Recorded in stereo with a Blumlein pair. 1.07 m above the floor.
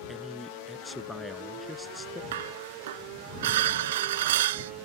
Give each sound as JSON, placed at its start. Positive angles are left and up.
{"t": 0.1, "sound": "a man speaking", "azimuth_deg": 0}
{"t": 2.3, "sound": "dishes clattering", "azimuth_deg": -55}